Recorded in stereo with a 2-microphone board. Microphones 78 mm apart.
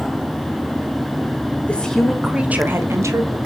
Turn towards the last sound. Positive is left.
turn(degrees=-45)  # may be behind; listen again after turning